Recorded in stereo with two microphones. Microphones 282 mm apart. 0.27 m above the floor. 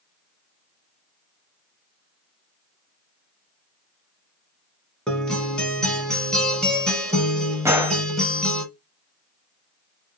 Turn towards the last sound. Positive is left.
turn(degrees=-10)  # may be behind; listen again after turning